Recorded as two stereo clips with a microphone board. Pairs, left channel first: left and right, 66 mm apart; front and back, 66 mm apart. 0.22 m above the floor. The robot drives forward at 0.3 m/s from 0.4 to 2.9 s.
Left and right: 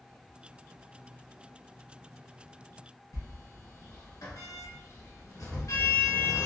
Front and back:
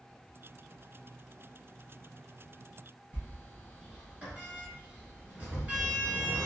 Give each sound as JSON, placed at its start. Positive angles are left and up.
{"t": 3.1, "sound": "a sliding door", "azimuth_deg": 115, "distance_m": 1.5}